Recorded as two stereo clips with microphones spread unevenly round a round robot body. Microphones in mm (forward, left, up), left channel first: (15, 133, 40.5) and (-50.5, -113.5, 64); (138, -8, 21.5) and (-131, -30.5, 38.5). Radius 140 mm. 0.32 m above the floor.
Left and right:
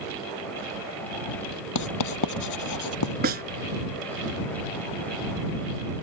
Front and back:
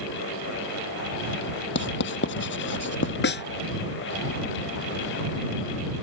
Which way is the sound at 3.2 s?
45° right.